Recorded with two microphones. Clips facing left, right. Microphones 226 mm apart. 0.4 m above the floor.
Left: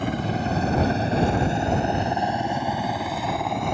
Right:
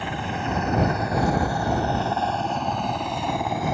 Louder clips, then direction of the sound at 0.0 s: Left 4 dB; 45° left (ahead or behind).